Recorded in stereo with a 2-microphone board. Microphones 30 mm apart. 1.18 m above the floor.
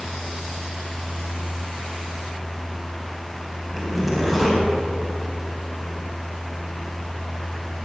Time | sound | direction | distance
3.7 | a zipper | 5° right (ahead or behind) | 3 m